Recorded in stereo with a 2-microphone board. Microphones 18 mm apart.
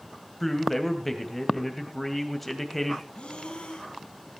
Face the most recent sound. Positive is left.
turn(degrees=65)  # may be behind; listen again after turning